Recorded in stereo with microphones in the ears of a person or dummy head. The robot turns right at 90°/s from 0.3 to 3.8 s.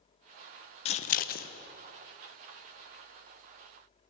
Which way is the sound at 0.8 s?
35° left (ahead or behind).